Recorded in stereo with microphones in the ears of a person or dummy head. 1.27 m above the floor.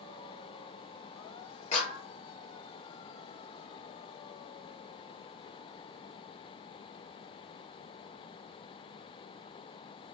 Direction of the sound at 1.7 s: 40° left (ahead or behind).